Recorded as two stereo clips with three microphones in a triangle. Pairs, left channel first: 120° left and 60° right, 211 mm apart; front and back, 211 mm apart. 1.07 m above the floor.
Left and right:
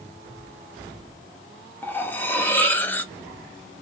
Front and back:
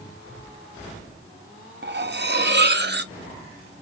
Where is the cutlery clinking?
160° right, 0.6 m.